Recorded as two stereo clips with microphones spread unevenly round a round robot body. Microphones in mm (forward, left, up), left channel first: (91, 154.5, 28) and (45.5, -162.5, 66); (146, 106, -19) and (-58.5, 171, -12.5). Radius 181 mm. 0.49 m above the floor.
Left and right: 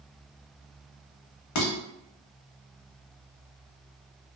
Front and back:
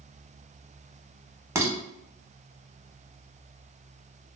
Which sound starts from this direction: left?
Dishes clattering, at 1.6 s.